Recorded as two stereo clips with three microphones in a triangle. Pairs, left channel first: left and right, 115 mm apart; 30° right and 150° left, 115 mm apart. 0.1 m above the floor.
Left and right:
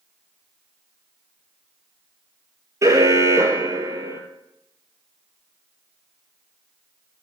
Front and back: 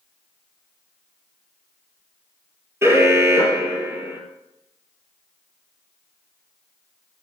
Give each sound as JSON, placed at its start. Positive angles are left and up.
{"t": 2.8, "sound": "an alarm", "azimuth_deg": -145, "distance_m": 3.0}